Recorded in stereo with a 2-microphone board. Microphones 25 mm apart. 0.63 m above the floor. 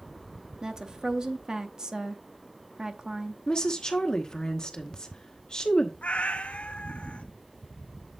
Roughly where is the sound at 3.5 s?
Left.